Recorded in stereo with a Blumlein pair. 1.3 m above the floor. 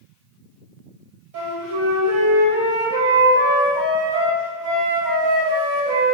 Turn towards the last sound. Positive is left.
turn(degrees=-50)